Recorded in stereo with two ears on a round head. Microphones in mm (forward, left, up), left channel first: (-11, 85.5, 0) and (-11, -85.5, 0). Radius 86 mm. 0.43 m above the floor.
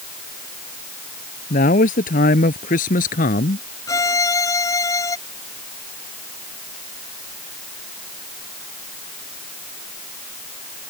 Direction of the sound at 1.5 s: 45° left (ahead or behind).